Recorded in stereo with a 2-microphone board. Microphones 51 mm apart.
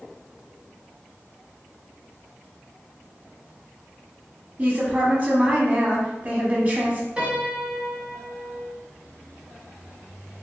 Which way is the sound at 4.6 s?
30° right (ahead or behind).